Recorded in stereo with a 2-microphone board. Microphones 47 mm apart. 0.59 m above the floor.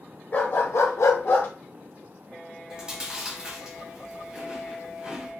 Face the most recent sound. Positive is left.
turn(degrees=-15)  # may be behind; listen again after turning